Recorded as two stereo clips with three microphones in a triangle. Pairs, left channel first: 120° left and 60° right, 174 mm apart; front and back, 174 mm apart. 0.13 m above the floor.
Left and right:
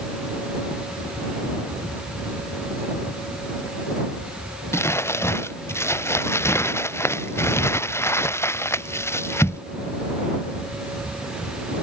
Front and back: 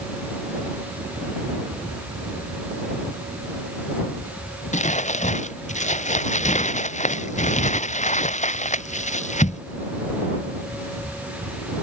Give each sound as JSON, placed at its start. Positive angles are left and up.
{"t": 4.7, "sound": "crumpling", "azimuth_deg": 45}